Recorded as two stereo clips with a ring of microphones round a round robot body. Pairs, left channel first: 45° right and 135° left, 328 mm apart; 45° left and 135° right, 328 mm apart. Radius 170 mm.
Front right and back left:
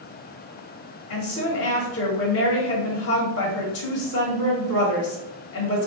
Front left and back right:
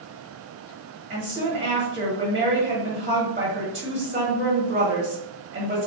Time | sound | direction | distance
1.1 | a woman speaking | 70° right | 1.1 m